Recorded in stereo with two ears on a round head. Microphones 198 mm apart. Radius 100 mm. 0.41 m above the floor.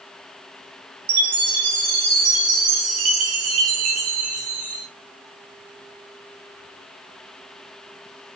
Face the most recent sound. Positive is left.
turn(degrees=-75)  # may be behind; listen again after turning